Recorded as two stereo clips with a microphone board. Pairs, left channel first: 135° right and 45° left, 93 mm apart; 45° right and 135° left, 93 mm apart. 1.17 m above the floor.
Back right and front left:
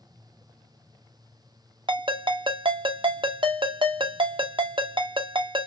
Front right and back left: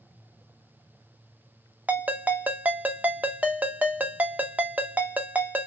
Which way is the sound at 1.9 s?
65° left.